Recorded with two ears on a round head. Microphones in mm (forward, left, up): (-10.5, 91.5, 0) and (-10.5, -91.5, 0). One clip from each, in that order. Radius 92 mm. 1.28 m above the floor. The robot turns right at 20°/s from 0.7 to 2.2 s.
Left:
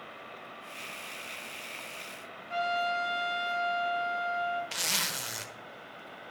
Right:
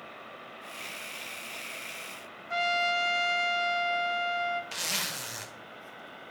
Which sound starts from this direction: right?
A trumpet, at 2.5 s.